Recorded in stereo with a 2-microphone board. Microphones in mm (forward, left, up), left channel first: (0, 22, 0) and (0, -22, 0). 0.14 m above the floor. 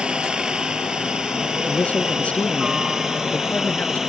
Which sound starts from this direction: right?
A helicopter, at 0.0 s.